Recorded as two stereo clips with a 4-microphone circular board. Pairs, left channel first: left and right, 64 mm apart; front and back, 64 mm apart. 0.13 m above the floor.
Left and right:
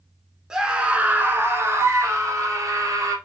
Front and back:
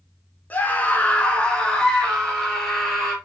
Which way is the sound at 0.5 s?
20° right.